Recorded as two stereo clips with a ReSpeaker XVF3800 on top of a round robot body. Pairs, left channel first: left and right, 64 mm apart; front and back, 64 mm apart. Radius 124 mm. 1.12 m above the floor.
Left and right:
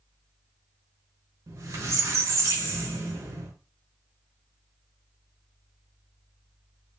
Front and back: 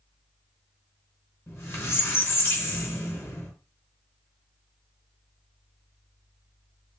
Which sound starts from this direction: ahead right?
A squeak, at 1.5 s.